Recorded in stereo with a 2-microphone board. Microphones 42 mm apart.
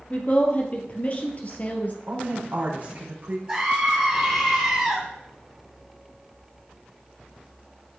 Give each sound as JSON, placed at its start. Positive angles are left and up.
{"t": 0.1, "sound": "a woman speaking", "side_deg": 35, "distance_m": 2.5}
{"t": 2.1, "sound": "a woman speaking", "side_deg": -40, "distance_m": 4.5}
{"t": 3.5, "sound": "a scream", "side_deg": -20, "distance_m": 2.5}